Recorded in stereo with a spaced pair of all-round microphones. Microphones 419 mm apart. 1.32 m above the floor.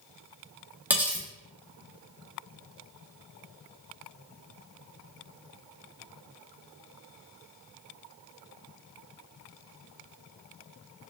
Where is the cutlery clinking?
5° right (ahead or behind), 1.3 m.